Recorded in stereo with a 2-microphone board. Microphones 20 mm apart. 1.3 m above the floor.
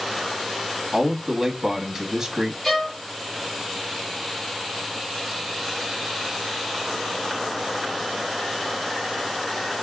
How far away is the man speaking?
About 0.8 m.